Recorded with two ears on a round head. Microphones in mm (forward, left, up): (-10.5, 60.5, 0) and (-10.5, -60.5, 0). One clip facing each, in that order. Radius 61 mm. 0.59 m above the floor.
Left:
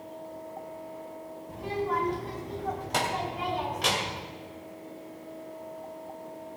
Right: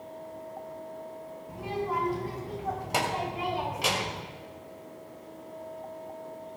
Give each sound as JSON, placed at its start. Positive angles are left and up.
{"t": 1.5, "sound": "a child speaking", "side_deg": -10, "distance_m": 3.5}